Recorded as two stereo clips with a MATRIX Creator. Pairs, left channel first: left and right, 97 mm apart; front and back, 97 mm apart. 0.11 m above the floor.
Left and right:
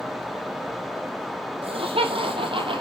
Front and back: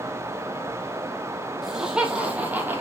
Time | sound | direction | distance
1.6 | laughter | 95° right | 4 m